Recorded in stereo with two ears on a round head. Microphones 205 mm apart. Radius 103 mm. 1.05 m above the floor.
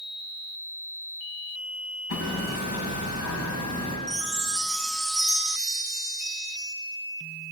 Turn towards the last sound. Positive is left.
turn(degrees=0)  # may be behind; listen again after turning